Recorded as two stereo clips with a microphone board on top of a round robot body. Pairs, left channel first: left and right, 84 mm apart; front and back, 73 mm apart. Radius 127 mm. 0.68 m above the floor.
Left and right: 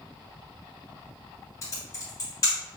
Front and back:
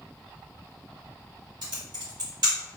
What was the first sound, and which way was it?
Typing on a keyboard, 145° left.